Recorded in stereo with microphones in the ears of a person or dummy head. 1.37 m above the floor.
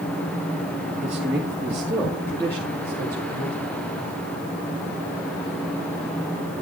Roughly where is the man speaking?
Centre.